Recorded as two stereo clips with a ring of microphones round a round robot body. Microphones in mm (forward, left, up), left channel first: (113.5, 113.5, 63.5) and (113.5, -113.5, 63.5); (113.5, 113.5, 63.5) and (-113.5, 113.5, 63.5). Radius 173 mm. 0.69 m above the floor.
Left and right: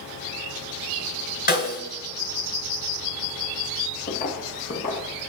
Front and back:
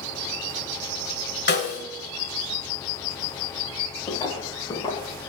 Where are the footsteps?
65° left, 0.8 m.